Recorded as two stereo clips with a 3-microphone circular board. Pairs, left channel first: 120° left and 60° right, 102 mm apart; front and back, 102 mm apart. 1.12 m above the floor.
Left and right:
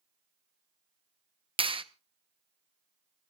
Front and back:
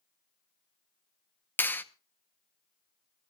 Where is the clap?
70° right, 0.8 m.